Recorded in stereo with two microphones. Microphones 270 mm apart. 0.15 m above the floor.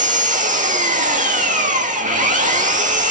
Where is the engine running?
30° right (ahead or behind), 3 m.